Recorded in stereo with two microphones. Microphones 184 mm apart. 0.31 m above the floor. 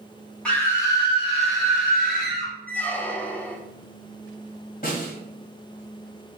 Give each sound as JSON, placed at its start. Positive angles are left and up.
{"t": 0.5, "sound": "a scream", "side_deg": 5, "distance_m": 1.9}
{"t": 2.7, "sound": "a squeak", "side_deg": 10, "distance_m": 0.5}
{"t": 4.8, "sound": "a snare drum", "side_deg": 50, "distance_m": 1.7}